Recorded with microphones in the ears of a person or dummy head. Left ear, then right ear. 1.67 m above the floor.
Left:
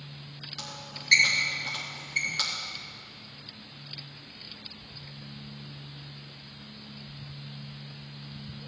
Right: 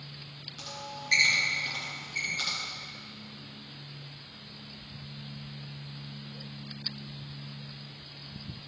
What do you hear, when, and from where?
0.6 s a squeak: 35° left (ahead or behind), 3.5 m